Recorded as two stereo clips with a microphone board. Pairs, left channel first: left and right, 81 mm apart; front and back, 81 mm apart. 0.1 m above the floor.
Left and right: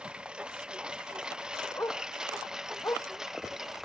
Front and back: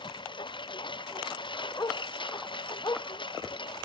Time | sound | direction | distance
0.0 | a lawn mower | 10° right | ?
1.8 | a dog barking | 35° left | ?